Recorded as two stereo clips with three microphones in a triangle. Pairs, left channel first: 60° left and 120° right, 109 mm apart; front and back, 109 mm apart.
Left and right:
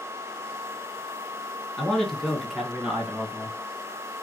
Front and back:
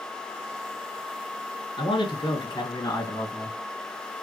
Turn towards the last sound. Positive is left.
turn(degrees=-55)